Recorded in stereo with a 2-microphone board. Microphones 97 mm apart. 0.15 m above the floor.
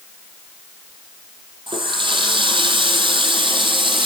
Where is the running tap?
60° right (ahead or behind), 4 m.